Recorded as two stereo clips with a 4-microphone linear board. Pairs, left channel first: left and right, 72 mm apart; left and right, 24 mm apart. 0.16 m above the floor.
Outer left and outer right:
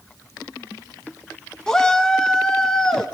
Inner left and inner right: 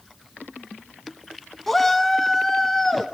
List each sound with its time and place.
1.7 s a shout: 10° left (ahead or behind), 1.0 m; by 3.1 s 5° left (ahead or behind), 1.9 m